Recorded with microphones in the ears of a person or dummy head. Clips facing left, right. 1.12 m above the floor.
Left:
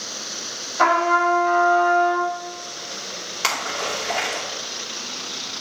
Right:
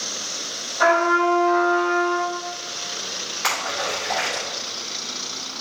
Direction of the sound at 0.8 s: 75° left (ahead or behind).